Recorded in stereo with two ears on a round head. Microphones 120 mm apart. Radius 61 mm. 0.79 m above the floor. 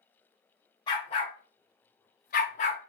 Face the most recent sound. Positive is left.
turn(degrees=45)  # may be behind; listen again after turning